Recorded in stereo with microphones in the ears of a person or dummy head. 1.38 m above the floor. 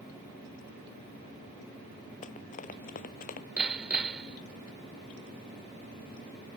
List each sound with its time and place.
2.2 s running footsteps: 40° left (ahead or behind); by 3.5 s 50° left (ahead or behind)
3.6 s hammering: 5° right (ahead or behind)